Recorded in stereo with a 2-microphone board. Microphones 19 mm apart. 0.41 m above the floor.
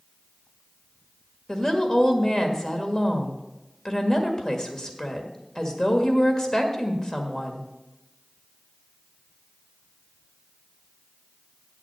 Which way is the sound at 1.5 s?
35° left (ahead or behind).